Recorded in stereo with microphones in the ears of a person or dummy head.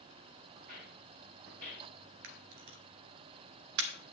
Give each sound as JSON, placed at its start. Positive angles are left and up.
{"t": 0.6, "sound": "footsteps", "side_deg": -45, "distance_m": 3.0}
{"t": 2.2, "sound": "a camera shutter", "side_deg": -70, "distance_m": 0.9}